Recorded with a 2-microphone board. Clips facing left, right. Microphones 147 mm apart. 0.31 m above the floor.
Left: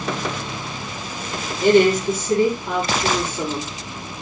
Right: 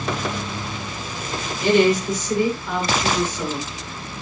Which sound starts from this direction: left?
A woman speaking, at 1.6 s.